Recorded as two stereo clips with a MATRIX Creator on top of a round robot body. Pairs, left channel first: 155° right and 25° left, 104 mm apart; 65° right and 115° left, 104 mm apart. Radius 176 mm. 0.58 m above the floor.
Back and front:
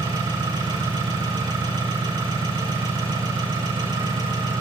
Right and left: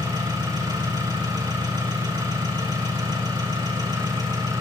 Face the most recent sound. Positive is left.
turn(degrees=65)